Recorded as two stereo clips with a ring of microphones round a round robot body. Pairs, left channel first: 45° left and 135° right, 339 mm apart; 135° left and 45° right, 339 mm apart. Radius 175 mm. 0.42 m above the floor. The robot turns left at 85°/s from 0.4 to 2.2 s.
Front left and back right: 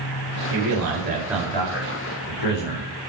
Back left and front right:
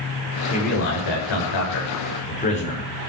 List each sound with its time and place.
0.5 s a man speaking: 150° right, 8 m; by 2.9 s 65° left, 8 m